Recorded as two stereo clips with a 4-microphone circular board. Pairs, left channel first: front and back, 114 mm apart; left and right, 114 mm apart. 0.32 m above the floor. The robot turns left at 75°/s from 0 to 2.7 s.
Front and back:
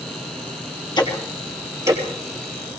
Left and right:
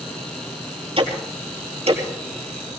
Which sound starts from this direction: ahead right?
Ticking, at 1.0 s.